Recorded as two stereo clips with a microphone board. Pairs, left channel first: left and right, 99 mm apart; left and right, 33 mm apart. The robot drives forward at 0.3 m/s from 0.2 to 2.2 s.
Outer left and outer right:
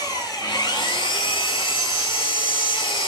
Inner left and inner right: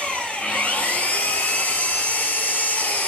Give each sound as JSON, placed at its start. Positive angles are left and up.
{"t": 0.0, "sound": "an engine running", "side_deg": 40, "distance_m": 0.7}